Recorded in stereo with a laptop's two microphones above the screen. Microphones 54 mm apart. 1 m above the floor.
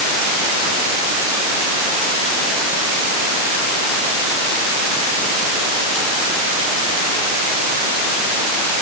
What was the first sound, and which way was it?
Only background noise.